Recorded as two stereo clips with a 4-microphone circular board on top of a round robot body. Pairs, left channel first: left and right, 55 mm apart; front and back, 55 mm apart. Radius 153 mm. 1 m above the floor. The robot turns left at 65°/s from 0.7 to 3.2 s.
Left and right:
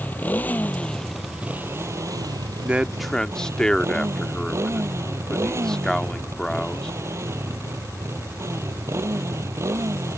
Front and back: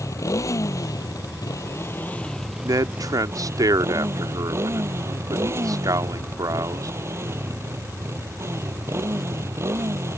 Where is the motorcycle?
30° left; by 10.2 s 135° right.